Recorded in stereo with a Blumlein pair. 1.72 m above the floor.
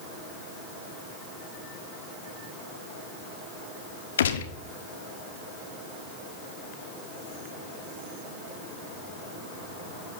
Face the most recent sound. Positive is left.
turn(degrees=60)